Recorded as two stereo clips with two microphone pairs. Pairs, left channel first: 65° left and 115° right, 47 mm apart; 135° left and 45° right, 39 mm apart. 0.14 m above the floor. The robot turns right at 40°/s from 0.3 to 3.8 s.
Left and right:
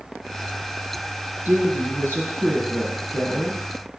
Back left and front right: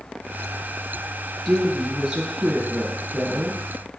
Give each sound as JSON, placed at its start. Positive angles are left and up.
{"t": 1.4, "sound": "a woman speaking", "azimuth_deg": -140, "distance_m": 2.5}